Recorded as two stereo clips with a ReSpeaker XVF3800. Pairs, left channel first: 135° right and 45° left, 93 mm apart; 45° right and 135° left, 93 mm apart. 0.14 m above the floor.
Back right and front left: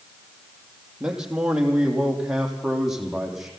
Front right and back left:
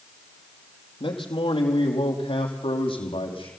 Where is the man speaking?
35° right, 3.5 m; by 3.5 s 40° right, 5 m.